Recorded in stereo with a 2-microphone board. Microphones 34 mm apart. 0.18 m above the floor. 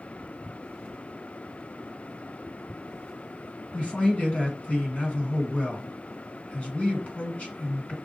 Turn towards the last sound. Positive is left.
turn(degrees=40)  # may be behind; listen again after turning